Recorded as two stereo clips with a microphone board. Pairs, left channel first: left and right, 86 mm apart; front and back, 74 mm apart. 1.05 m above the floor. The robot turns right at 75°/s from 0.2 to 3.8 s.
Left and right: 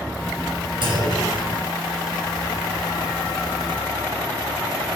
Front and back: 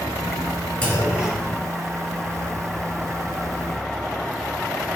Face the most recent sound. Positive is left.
turn(degrees=155)